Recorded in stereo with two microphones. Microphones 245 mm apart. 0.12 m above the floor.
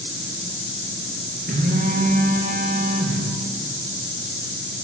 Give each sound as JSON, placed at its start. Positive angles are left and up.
{"t": 1.5, "sound": "a phone buzzing", "side_deg": -40, "distance_m": 10.0}